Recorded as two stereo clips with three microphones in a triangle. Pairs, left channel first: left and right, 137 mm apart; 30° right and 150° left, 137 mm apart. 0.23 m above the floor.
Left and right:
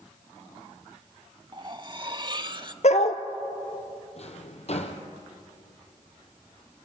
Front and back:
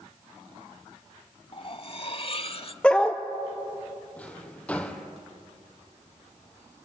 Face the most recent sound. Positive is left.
turn(degrees=50)